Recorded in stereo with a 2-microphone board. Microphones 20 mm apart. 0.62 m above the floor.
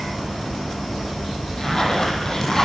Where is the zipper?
35° left (ahead or behind), 5 m.